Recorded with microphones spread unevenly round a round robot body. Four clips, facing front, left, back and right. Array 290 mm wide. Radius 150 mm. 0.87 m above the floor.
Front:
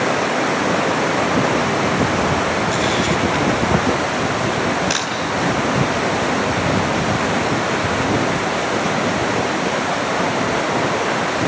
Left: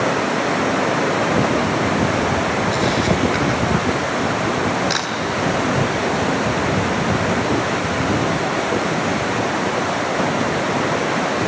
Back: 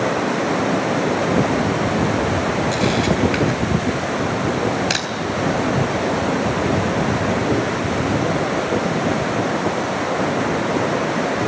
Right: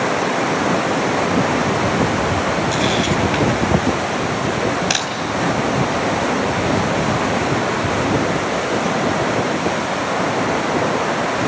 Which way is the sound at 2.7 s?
145° right.